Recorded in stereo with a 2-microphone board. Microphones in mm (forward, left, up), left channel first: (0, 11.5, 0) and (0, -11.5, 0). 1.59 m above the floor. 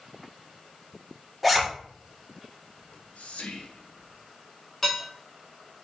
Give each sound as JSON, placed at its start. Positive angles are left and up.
{"t": 1.4, "sound": "a zipper", "side_deg": 0, "distance_m": 1.7}
{"t": 2.8, "sound": "whispering", "side_deg": 85, "distance_m": 1.4}
{"t": 4.8, "sound": "dishes clattering", "side_deg": 20, "distance_m": 3.0}